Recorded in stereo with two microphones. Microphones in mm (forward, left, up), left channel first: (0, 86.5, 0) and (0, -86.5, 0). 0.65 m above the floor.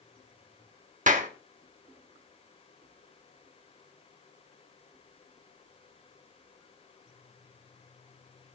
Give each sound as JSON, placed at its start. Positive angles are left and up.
{"t": 1.1, "sound": "a clap", "side_deg": -50, "distance_m": 1.0}